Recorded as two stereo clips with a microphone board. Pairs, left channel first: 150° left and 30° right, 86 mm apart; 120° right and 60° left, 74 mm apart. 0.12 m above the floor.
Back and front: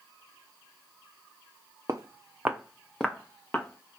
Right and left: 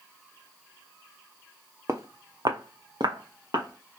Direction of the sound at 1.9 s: 15° left.